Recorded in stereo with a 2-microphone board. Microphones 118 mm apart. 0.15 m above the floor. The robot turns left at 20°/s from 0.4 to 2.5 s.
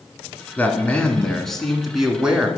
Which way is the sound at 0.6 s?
25° left.